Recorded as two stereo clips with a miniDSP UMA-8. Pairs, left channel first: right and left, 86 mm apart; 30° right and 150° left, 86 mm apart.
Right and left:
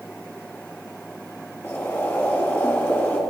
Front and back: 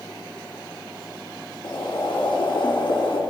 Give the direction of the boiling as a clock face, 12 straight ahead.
1 o'clock.